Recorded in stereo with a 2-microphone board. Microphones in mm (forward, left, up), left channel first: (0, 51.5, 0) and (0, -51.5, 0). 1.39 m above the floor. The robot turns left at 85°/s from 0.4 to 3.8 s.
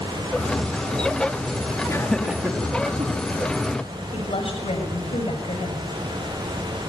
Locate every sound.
1.9 s laughter: 30° left (ahead or behind), 3.5 m; by 3.1 s 75° right (ahead or behind), 3.5 m
4.1 s a woman speaking: 80° left, 6.5 m